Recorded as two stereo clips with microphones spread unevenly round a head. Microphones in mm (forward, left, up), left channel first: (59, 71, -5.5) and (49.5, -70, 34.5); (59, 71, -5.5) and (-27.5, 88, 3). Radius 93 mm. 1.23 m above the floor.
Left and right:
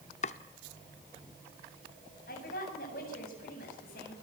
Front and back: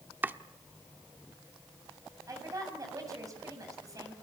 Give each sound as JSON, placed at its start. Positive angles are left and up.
{"t": 0.2, "sound": "chopping", "azimuth_deg": 125, "distance_m": 0.9}
{"t": 2.3, "sound": "a woman speaking", "azimuth_deg": 120, "distance_m": 7.5}